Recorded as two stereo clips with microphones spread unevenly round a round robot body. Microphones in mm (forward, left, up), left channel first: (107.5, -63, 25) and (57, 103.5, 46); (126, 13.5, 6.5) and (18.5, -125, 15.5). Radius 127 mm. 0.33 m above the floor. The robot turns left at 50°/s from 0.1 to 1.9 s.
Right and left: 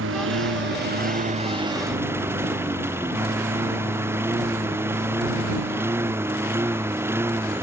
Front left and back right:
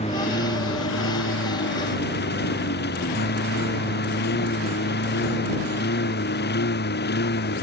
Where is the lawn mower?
120° left; by 7.6 s 30° left.